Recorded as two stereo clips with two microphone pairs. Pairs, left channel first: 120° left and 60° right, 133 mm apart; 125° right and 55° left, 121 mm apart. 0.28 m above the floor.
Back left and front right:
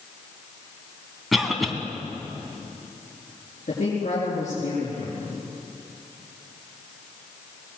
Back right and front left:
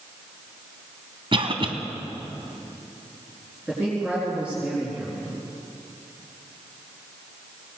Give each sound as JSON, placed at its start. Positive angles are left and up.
{"t": 1.3, "sound": "a cough", "azimuth_deg": 30, "distance_m": 2.5}
{"t": 3.7, "sound": "a woman speaking", "azimuth_deg": 135, "distance_m": 5.0}